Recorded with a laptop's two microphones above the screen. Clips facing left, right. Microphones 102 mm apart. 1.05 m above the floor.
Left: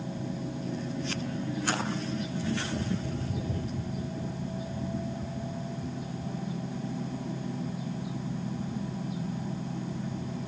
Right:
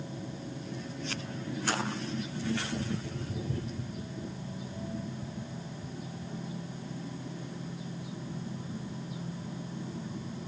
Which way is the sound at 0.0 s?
85° left.